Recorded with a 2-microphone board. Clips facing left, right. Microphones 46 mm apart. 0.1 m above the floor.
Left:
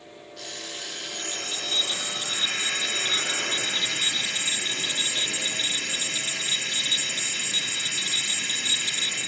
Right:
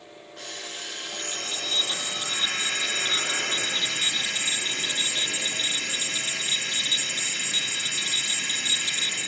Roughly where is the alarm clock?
Right.